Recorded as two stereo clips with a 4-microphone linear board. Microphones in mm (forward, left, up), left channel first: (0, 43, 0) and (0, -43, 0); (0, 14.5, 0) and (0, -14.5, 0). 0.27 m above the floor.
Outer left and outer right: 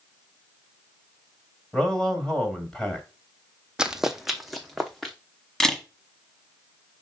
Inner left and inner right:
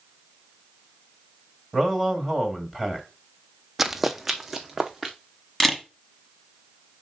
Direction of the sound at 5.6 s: 5° left (ahead or behind).